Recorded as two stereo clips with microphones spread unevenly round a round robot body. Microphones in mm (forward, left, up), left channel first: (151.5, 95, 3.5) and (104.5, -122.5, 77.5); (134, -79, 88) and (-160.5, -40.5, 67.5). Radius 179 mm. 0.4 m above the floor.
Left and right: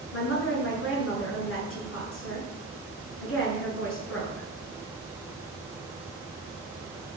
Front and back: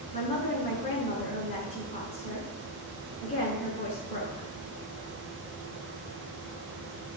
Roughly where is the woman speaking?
Ahead left.